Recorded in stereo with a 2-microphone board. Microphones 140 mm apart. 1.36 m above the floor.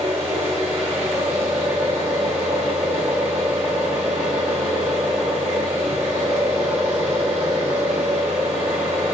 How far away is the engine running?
About 1.8 m.